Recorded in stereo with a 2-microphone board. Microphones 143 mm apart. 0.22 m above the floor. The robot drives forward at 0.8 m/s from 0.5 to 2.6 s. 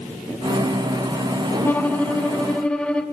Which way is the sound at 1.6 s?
15° left (ahead or behind).